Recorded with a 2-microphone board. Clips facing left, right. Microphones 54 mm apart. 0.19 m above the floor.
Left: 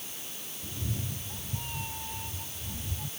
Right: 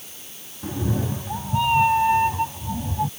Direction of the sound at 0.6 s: 85° right.